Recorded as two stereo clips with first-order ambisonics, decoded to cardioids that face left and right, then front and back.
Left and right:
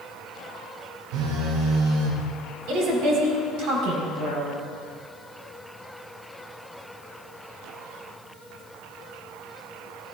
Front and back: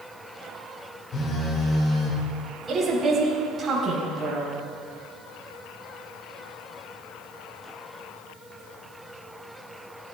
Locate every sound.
1.1 s a phone buzzing: 60° right, 2 m
2.7 s a woman speaking: 105° right, 4.5 m